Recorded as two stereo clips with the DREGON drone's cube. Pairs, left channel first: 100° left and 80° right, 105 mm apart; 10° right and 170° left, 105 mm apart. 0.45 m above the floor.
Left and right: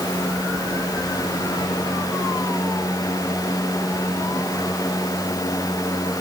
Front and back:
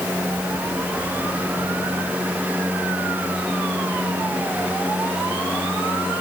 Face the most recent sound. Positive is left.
No sound to turn to.